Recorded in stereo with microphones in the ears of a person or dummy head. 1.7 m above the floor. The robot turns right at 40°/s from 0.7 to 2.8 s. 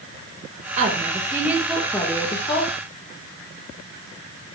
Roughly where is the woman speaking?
Ahead right.